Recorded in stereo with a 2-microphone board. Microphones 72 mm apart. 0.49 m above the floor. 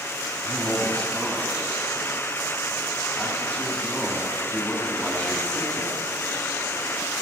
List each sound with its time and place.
0.4 s a man speaking: 5° left (ahead or behind), 3 m